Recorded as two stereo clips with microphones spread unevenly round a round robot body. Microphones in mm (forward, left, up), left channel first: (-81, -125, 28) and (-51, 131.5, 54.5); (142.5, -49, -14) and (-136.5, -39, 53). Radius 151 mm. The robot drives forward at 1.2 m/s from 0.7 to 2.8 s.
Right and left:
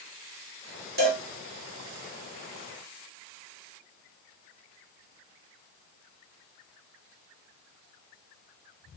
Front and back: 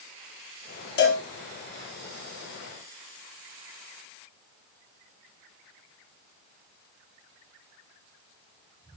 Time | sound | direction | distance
1.0 | a cowbell | 20° left | 2.5 m